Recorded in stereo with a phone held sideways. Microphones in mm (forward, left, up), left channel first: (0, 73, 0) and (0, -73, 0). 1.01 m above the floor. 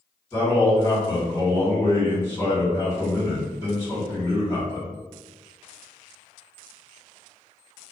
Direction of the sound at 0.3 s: 20° left (ahead or behind).